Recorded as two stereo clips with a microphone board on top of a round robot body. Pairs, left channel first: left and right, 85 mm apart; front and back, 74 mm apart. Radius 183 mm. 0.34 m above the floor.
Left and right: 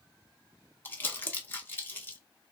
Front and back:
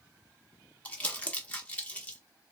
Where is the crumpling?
50° left, 1.2 m.